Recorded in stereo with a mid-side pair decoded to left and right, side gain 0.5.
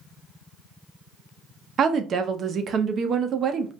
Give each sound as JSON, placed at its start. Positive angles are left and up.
{"t": 1.8, "sound": "a woman speaking", "azimuth_deg": -50, "distance_m": 0.6}